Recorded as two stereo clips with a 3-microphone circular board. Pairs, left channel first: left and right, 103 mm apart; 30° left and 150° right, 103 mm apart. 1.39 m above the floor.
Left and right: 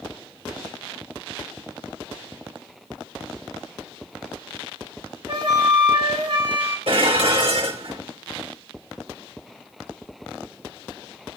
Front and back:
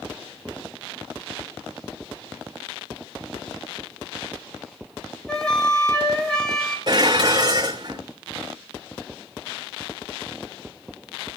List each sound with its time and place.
5.3 s a flute: 55° right, 2.0 m
6.9 s dishes clattering: 105° right, 3 m